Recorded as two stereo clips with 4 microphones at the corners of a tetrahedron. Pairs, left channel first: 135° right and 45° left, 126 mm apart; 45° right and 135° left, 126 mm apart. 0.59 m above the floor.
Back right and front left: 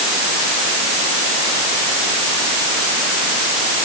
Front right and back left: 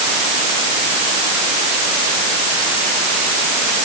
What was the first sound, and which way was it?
Only background noise.